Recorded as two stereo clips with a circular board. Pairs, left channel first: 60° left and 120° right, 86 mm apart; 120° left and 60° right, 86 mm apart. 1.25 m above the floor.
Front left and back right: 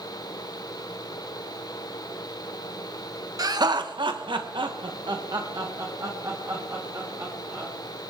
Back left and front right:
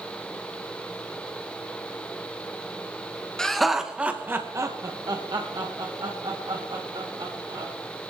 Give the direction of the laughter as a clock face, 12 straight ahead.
5 o'clock.